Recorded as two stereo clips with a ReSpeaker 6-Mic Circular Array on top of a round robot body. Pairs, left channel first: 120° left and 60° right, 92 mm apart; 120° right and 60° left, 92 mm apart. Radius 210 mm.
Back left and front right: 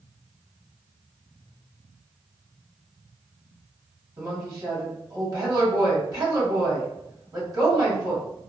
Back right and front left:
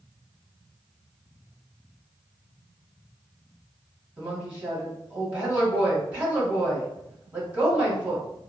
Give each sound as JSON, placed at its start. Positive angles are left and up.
{"t": 4.2, "sound": "a woman speaking", "azimuth_deg": -15, "distance_m": 1.7}